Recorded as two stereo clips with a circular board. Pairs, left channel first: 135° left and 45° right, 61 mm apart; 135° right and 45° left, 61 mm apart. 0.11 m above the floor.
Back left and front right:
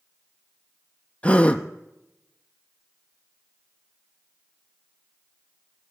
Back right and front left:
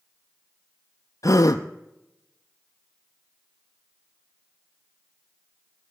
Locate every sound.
1.2 s a gasp: 155° right, 0.7 m